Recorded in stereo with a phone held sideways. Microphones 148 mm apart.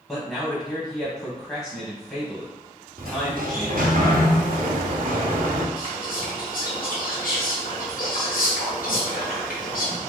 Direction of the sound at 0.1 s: 10° left (ahead or behind).